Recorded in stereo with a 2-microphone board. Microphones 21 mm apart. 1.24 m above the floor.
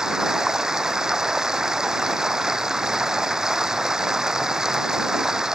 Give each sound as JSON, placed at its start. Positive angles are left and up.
{"t": 0.0, "sound": "running water", "side_deg": -30}